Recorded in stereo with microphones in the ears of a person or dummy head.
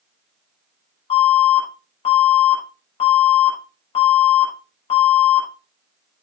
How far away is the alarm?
About 6 m.